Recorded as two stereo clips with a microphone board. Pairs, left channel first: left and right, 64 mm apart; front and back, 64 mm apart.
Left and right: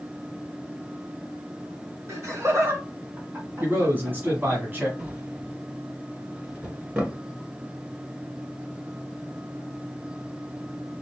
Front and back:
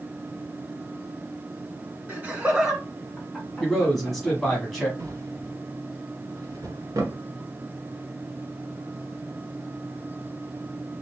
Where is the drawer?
155° right, 1.6 m.